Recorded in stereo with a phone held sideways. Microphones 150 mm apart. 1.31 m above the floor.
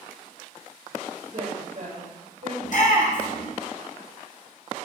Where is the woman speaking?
55° right (ahead or behind), 7 m.